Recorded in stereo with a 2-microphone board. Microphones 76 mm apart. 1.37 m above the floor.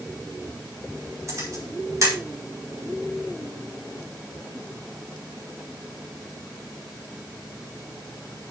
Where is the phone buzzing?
I don't hear a phone buzzing.